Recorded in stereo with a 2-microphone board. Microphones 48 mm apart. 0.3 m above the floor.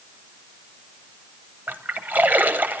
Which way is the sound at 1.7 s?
40° right (ahead or behind).